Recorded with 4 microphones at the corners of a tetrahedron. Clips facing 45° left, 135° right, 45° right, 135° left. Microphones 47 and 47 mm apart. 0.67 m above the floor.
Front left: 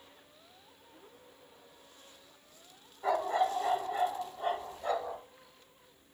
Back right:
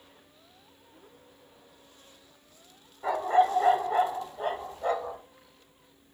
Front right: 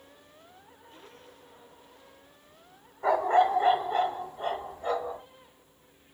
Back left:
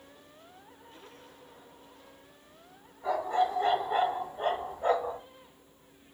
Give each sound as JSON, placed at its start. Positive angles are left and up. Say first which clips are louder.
{"t": 3.0, "sound": "a dog barking", "louder": "back right 6 dB, front right 5 dB", "azimuth_deg": -60, "distance_m": 0.7}